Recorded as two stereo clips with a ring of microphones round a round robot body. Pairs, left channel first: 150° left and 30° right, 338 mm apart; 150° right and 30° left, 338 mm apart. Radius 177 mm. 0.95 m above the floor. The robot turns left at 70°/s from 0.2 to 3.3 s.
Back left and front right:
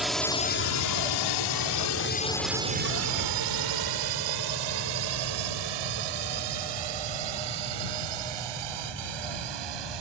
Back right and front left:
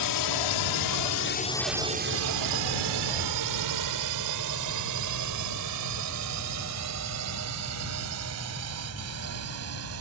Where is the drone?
120° right; by 10.0 s 20° right.